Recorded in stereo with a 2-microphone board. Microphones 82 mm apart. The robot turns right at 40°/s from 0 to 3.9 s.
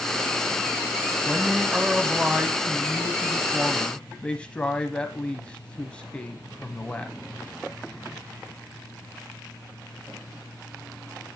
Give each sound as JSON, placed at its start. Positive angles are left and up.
{"t": 1.2, "sound": "a man speaking", "side_deg": -20, "distance_m": 1.0}